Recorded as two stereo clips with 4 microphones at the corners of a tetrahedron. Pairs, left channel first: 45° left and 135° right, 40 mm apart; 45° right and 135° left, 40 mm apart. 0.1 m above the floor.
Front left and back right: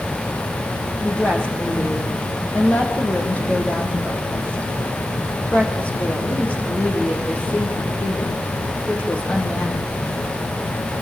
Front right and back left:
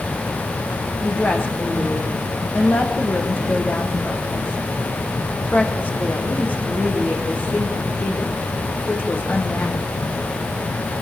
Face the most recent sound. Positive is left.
turn(degrees=-5)